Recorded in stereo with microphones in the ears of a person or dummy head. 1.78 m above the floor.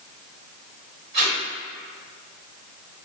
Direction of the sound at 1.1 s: 65° right (ahead or behind).